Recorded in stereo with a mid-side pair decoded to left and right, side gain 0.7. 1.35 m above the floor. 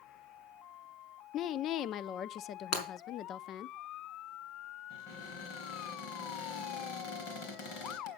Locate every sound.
1.3 s a woman speaking: 50° left, 0.6 m
2.7 s breaking glass: 70° left, 4 m
4.9 s a cupboard door: 70° left, 3.5 m